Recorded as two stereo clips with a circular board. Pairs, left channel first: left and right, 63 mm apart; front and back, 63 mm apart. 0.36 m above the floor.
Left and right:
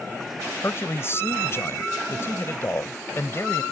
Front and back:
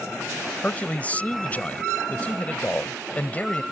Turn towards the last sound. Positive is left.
turn(degrees=60)